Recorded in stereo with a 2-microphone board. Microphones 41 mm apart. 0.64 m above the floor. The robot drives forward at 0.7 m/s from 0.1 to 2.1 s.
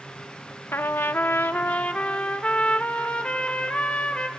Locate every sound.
0.7 s a trumpet: 60° left (ahead or behind), 0.6 m; by 4.3 s 30° left (ahead or behind), 1.0 m